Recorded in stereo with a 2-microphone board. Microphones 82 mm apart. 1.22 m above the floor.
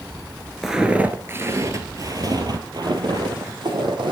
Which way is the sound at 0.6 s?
5° right (ahead or behind).